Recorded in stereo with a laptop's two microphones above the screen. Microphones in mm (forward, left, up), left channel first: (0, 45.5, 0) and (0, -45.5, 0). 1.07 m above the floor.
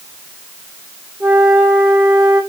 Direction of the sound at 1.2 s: 15° right (ahead or behind).